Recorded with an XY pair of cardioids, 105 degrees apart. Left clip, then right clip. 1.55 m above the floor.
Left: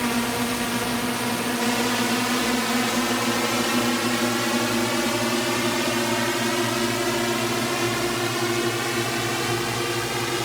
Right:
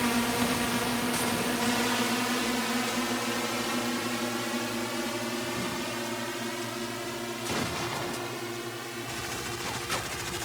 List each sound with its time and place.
0.0 s a drone: 20° left; by 10.4 s 80° left